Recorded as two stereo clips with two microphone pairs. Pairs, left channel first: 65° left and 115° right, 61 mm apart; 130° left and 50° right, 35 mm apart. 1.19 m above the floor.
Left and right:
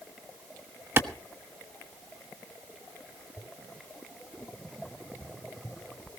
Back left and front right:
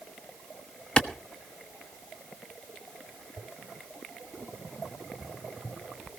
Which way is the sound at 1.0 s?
165° right.